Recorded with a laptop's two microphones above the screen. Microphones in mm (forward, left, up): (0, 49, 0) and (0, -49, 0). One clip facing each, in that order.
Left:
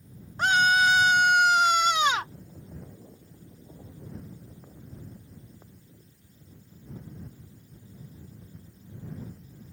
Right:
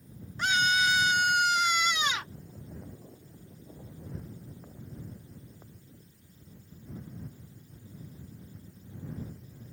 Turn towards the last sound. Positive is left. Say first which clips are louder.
# left 5 dB
turn(degrees=45)  # may be behind; listen again after turning